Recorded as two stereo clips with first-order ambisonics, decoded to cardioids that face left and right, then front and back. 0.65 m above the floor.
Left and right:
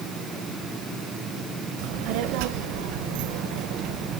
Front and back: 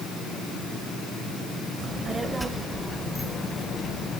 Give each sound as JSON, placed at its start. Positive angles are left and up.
{"t": 1.8, "sound": "a child speaking", "azimuth_deg": -105, "distance_m": 1.6}